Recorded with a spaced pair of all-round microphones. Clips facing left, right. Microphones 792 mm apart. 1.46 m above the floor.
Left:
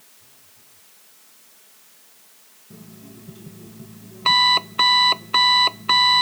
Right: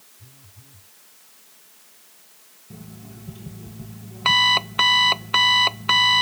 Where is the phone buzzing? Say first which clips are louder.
Right 6 dB; 85° right.